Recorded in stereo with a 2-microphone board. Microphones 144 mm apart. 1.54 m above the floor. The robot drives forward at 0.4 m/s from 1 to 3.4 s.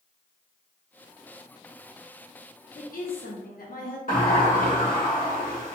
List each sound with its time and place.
2.8 s a woman speaking: 70° left (ahead or behind), 0.8 m; by 4.0 s 85° left, 0.8 m
4.1 s a sliding door: 70° left (ahead or behind), 0.8 m